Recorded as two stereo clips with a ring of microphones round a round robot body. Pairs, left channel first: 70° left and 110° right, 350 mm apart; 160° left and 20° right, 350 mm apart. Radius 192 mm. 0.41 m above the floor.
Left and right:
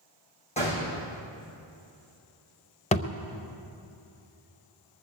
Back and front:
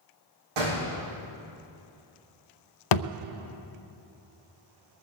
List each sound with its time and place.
0.6 s a gunshot: 5° right, 4 m
2.9 s a thud: 140° left, 0.5 m